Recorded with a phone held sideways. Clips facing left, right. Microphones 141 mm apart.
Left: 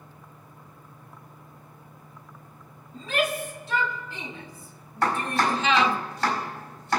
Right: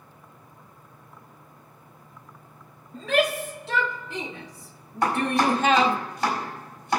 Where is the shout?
75° right (ahead or behind), 3.5 m; by 6.0 s 20° right (ahead or behind), 0.5 m.